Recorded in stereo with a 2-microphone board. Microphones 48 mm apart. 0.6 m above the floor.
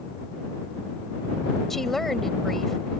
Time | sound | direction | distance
1.7 | a woman speaking | centre (ahead or behind) | ?